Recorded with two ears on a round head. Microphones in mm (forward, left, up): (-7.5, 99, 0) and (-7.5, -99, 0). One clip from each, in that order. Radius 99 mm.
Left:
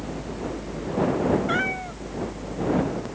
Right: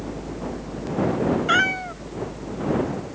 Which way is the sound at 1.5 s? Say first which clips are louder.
Right 5 dB; 40° right (ahead or behind).